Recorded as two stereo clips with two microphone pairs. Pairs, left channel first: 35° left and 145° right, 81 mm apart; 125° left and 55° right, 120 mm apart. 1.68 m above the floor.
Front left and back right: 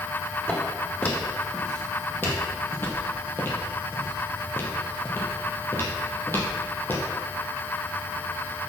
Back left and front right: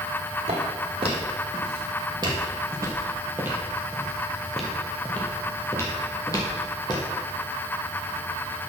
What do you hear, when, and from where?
0.5 s footsteps: 35° right, 2.5 m; by 7.0 s 90° left, 2.5 m